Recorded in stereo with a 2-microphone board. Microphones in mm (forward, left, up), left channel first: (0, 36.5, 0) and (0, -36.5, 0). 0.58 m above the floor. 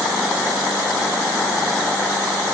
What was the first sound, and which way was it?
Only background noise.